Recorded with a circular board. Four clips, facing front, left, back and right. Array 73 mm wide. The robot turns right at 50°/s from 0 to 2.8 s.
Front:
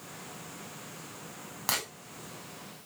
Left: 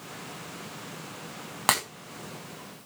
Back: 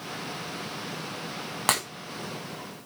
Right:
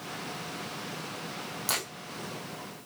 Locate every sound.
1.7 s breaking glass: 125° left, 6 m; by 1.8 s 135° left, 6 m